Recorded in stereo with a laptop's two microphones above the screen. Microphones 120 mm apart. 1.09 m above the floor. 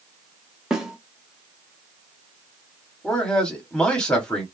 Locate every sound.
0.7 s a snare drum: 5° right (ahead or behind), 0.6 m
3.0 s a man speaking: 10° left (ahead or behind), 0.9 m